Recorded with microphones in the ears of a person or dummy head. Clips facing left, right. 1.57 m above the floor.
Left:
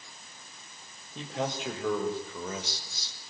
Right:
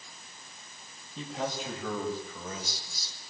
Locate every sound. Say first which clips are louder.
1.1 s a man speaking: left 1 dB; 55° left (ahead or behind), 6.5 m; by 3.1 s 70° left (ahead or behind), 4.5 m